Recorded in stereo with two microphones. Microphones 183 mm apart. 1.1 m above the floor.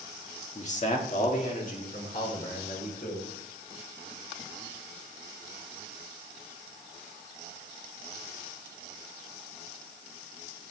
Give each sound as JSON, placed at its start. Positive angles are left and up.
{"t": 0.6, "sound": "a man speaking", "side_deg": 40, "distance_m": 1.9}